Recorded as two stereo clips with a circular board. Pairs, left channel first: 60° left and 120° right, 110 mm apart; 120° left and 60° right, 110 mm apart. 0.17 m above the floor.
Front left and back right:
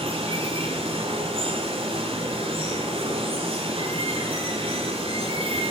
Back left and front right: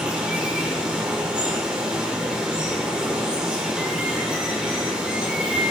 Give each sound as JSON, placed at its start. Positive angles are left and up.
{"t": 0.0, "sound": "running water", "azimuth_deg": -140, "distance_m": 5.0}